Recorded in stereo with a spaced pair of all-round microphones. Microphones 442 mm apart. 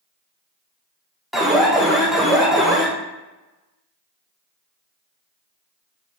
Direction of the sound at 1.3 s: Centre (ahead or behind).